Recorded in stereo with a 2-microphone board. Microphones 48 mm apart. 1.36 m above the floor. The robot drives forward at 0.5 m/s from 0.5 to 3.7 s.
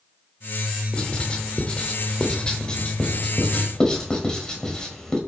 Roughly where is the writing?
Left.